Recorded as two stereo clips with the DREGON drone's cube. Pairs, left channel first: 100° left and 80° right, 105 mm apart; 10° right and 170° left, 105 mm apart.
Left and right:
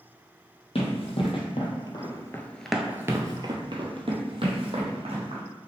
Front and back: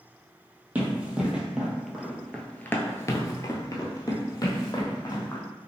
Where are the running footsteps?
95° left, 1.1 m; by 5.4 s 65° right, 1.5 m.